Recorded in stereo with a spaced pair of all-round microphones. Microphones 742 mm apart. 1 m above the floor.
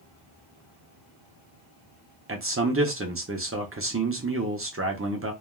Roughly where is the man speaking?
Centre.